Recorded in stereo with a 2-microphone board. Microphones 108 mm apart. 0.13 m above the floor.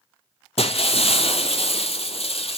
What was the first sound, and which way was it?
Breaking glass, 65° left (ahead or behind).